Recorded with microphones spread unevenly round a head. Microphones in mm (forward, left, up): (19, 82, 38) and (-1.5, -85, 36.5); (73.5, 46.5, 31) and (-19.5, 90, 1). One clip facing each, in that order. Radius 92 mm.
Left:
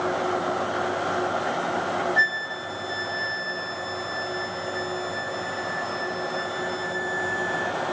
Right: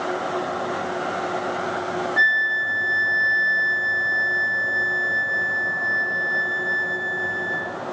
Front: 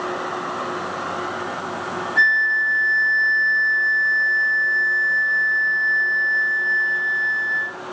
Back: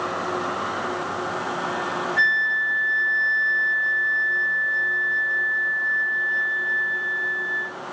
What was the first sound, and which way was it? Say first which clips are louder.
A flute: right 1 dB, front 3 dB; 50° right.